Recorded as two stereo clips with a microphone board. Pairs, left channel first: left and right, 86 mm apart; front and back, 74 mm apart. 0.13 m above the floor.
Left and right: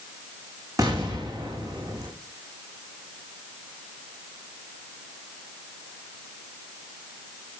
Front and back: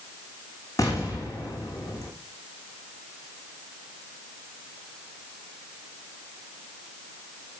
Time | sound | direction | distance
0.8 | an explosion | 45° right | 6.5 m